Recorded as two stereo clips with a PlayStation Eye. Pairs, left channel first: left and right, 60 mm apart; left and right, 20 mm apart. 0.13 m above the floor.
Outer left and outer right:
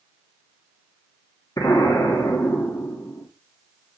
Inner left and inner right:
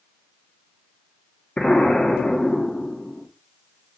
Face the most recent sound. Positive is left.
turn(degrees=65)  # may be behind; listen again after turning